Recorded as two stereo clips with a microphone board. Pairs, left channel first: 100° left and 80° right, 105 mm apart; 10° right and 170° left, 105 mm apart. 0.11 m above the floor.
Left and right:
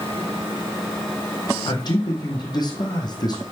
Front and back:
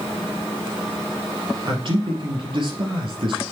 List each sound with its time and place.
1.7 s a man speaking: 145° left, 3 m